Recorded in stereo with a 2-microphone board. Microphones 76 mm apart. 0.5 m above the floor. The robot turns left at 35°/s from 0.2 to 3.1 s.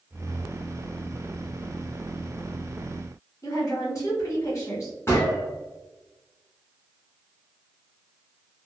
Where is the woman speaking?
45° left (ahead or behind), 1.6 m.